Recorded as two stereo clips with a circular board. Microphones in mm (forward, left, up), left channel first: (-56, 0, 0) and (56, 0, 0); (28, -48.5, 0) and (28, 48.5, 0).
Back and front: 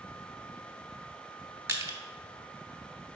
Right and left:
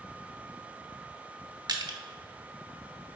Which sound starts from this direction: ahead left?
Crushing, at 1.7 s.